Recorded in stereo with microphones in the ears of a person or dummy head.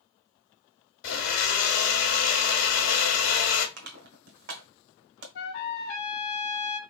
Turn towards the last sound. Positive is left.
turn(degrees=65)  # may be behind; listen again after turning